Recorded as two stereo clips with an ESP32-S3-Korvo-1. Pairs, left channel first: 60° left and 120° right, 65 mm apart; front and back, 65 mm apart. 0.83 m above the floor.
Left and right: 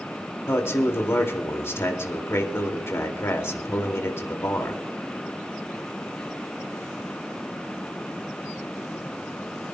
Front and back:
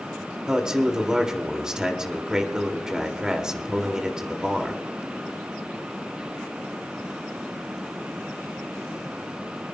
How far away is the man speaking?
About 2 m.